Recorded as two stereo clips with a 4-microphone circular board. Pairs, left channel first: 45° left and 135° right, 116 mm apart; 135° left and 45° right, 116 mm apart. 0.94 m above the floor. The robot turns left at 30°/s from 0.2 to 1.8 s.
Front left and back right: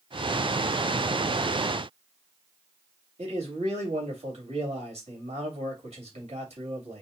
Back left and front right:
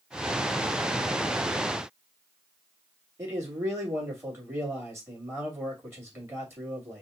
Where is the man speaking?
110° right, 2 m.